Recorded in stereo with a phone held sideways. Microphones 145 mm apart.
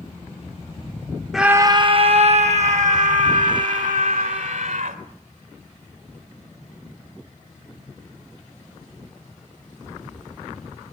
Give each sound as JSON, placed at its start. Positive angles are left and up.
{"t": 1.3, "sound": "a scream", "side_deg": 0, "distance_m": 0.5}